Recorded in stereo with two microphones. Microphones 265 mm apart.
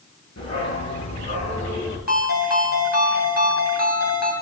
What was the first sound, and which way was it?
A dog barking, 80° left.